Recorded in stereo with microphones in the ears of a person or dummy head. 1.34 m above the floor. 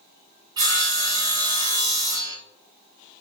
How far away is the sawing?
About 0.8 m.